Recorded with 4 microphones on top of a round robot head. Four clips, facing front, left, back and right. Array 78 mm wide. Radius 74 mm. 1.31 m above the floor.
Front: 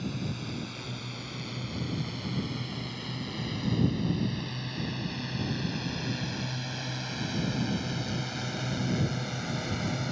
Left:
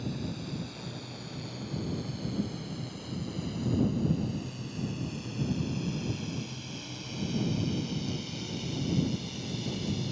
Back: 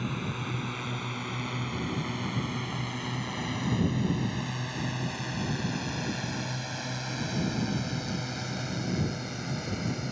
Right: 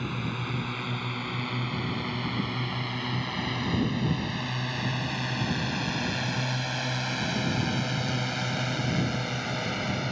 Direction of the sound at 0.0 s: 120° right.